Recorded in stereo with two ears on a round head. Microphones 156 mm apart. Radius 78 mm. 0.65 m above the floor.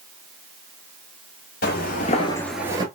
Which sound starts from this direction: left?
Footsteps, at 1.6 s.